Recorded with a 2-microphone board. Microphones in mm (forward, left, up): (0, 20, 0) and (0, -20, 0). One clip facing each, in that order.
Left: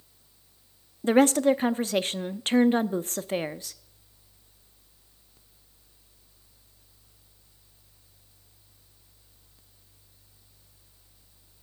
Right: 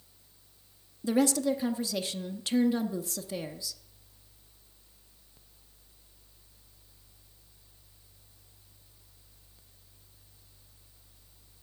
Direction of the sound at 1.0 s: 50° left (ahead or behind).